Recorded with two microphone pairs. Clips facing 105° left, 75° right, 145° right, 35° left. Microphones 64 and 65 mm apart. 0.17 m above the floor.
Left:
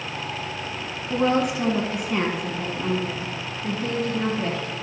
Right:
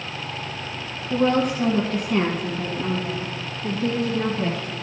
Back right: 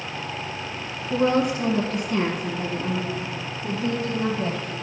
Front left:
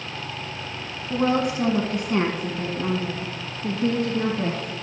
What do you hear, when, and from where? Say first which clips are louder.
1.1 s a woman speaking: right 1 dB, back right 1 dB; 75° left, 1.2 m; by 4.7 s 15° left, 3.5 m